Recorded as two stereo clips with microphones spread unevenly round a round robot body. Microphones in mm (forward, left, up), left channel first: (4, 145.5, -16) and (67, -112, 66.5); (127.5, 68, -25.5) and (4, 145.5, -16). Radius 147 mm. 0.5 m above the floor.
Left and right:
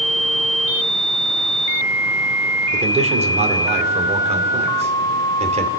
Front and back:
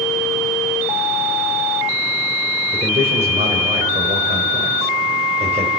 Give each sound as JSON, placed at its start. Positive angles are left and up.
{"t": 2.7, "sound": "a man speaking", "azimuth_deg": -155, "distance_m": 1.9}